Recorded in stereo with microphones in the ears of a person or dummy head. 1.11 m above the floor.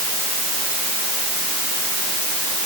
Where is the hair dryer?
I don't hear a hair dryer.